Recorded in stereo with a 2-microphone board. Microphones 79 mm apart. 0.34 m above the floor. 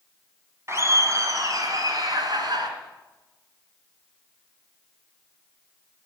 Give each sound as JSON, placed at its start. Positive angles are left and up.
{"t": 0.7, "sound": "laughter", "side_deg": -35, "distance_m": 2.5}